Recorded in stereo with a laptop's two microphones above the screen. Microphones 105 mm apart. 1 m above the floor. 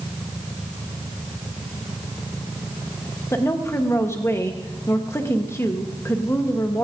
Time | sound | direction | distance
3.3 | a woman speaking | 25° left (ahead or behind) | 1.0 m